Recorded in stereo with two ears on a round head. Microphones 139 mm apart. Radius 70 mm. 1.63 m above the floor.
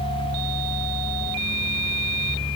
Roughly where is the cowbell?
No cowbell in this recording.